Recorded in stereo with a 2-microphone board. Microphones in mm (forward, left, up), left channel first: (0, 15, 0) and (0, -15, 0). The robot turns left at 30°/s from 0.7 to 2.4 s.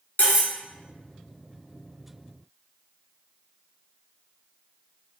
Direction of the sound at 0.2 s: 60° left (ahead or behind).